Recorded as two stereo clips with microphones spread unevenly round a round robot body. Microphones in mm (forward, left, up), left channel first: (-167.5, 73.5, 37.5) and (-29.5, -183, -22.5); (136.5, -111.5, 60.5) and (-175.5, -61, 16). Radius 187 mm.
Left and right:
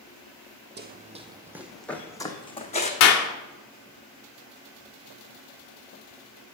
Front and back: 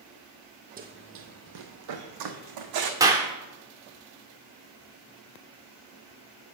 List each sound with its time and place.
0.8 s running footsteps: 120° right, 0.9 m; by 2.9 s straight behind, 1.4 m
3.0 s a clap: 110° left, 0.6 m